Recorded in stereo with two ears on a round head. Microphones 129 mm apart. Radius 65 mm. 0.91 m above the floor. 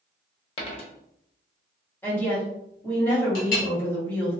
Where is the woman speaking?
15° left (ahead or behind), 1.6 m.